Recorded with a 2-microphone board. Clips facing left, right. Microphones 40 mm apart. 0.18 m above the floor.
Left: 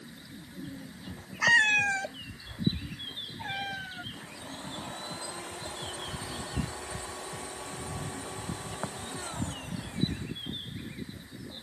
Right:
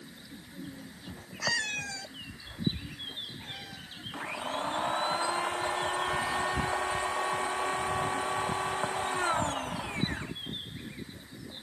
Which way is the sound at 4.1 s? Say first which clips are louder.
Right 9 dB; 50° right (ahead or behind).